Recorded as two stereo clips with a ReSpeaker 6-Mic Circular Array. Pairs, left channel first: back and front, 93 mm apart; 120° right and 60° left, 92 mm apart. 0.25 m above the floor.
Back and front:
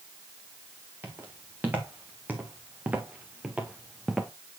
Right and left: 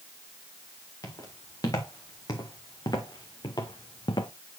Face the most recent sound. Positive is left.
turn(degrees=-85)